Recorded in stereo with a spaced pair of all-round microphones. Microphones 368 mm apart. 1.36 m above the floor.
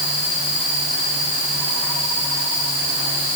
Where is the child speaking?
I don't hear a child speaking.